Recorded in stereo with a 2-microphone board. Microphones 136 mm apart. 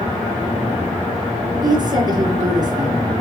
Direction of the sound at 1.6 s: 30° right (ahead or behind).